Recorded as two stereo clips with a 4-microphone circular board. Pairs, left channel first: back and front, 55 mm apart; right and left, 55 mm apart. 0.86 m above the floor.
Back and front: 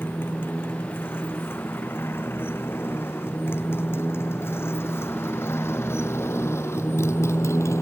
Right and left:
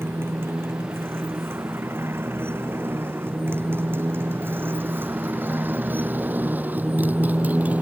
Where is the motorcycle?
130° left; by 7.8 s 150° left.